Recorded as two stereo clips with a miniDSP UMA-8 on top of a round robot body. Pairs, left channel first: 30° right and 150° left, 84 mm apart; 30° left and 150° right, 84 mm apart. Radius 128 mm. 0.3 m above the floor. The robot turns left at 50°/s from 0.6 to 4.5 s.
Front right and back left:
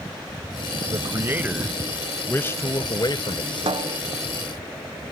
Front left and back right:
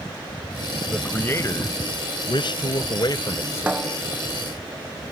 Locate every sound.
0.9 s a man speaking: 110° left; by 3.9 s 40° right
3.7 s a snare drum: 135° left; by 4.0 s 120° left